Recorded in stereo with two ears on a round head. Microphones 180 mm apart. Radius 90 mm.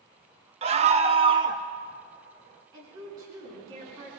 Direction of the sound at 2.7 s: 20° right (ahead or behind).